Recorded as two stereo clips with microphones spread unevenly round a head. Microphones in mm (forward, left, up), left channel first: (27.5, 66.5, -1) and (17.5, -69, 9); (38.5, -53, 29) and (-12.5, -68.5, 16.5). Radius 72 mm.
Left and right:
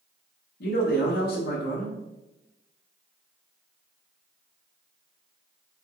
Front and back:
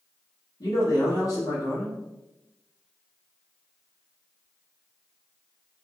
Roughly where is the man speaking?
Left.